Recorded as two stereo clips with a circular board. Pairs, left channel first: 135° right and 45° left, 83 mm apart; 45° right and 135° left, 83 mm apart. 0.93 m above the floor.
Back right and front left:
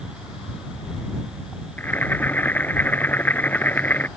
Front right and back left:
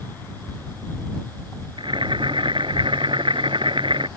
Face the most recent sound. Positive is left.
turn(degrees=155)